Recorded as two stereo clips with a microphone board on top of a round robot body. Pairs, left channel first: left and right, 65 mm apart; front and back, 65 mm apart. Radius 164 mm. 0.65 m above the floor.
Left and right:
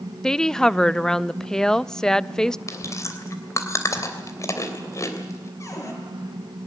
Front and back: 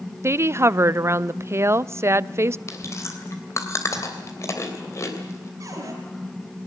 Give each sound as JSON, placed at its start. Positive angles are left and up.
{"t": 0.2, "sound": "a woman speaking", "azimuth_deg": 165, "distance_m": 0.6}
{"t": 2.7, "sound": "chewing", "azimuth_deg": 50, "distance_m": 3.0}
{"t": 5.6, "sound": "a cupboard door", "azimuth_deg": 135, "distance_m": 5.5}